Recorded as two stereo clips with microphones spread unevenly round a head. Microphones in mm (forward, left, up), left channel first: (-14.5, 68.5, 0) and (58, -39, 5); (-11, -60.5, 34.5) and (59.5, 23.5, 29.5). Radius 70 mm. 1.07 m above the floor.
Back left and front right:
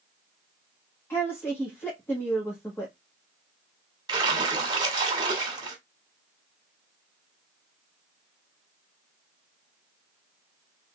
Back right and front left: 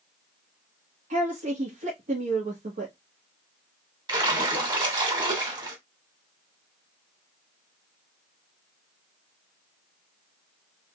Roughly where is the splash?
Ahead.